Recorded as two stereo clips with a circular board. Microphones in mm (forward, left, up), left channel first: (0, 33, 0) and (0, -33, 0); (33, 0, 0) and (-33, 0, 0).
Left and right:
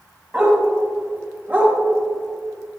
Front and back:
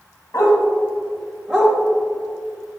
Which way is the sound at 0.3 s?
20° right.